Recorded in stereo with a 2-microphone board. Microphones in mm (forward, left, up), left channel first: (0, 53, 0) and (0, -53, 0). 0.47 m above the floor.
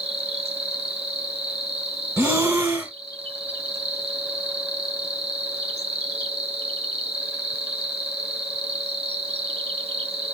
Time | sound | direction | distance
0.0 | an insect | 70° right (ahead or behind) | 1.8 m
2.2 | breathing | 25° right (ahead or behind) | 1.5 m